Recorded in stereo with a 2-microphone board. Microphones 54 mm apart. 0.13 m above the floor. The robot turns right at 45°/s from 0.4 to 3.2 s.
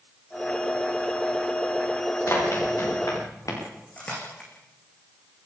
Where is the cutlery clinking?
25° left (ahead or behind), 5 m.